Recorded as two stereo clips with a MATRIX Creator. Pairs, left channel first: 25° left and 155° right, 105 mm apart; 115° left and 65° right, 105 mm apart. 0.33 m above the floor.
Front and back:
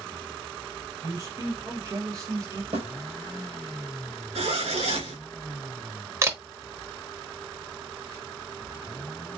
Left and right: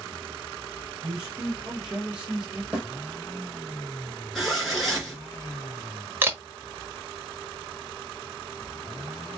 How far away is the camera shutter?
About 1.2 m.